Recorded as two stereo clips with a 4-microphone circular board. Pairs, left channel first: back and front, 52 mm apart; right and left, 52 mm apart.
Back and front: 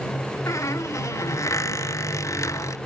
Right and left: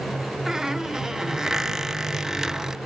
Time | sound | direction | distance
0.5 | a squeak | 170° left | ?